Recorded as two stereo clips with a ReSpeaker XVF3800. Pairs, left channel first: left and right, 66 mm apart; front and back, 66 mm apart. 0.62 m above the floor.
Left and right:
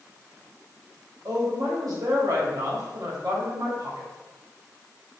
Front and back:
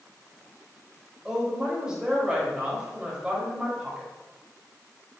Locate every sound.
1.2 s a woman speaking: 105° right, 3.5 m